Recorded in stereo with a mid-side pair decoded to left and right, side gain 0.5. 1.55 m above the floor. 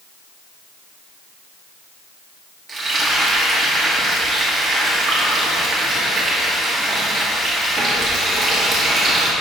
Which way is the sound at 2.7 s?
45° right.